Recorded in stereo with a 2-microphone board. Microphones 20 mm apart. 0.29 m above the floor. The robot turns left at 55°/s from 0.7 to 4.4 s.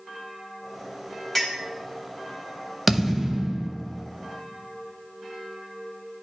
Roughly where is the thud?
Ahead.